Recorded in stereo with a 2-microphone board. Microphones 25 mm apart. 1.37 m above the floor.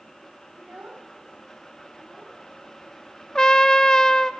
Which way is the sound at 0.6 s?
65° right (ahead or behind).